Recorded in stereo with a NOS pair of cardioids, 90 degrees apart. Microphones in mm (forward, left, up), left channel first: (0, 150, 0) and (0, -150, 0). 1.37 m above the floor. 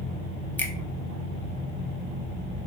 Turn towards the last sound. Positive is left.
turn(degrees=5)